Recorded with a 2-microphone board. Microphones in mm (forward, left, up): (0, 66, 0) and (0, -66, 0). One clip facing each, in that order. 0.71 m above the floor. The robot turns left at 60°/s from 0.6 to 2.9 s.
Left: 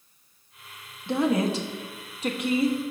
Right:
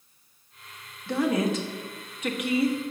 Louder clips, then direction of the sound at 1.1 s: Left 1 dB; 20° left (ahead or behind).